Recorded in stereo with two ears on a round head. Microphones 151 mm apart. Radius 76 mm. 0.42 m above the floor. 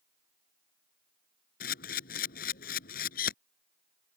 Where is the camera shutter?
55° left (ahead or behind).